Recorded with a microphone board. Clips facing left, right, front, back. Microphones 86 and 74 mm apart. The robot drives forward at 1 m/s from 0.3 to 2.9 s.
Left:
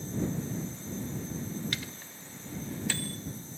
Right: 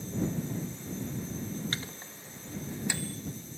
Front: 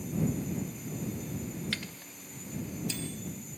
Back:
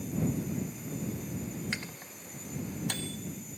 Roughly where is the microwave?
Behind right.